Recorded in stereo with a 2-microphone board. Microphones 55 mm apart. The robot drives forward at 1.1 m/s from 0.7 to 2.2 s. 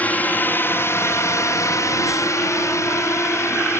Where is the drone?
30° left (ahead or behind); by 3.8 s 50° left (ahead or behind).